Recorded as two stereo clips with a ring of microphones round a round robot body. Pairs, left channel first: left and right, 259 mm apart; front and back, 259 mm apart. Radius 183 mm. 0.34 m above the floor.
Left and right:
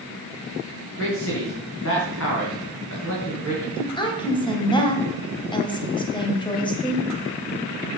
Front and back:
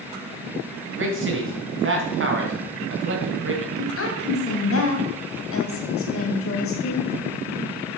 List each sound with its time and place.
1.0 s a man speaking: 140° left, 3 m
3.8 s a woman speaking: 20° left, 2.5 m